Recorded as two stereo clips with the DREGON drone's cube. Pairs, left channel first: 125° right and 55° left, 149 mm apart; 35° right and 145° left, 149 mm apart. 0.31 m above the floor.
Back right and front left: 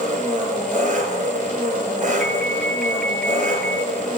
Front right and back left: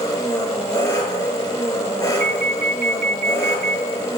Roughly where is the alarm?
Behind left.